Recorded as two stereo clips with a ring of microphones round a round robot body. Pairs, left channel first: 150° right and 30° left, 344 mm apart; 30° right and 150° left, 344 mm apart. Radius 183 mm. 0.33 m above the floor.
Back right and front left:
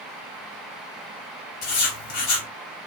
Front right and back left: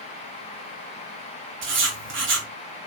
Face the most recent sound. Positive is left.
turn(degrees=-155)